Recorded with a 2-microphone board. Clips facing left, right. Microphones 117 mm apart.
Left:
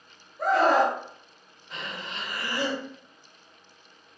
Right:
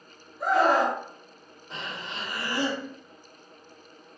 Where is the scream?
80° left, 1.9 m.